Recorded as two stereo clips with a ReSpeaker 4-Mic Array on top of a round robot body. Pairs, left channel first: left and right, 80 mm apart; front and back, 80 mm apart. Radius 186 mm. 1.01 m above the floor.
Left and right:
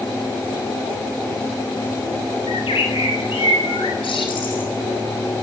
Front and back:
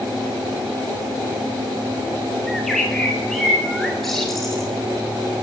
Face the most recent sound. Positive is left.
turn(degrees=85)